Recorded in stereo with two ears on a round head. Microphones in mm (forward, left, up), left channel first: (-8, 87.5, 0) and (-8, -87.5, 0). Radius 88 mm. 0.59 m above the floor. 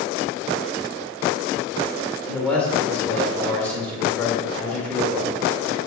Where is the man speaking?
5° left (ahead or behind), 2 m.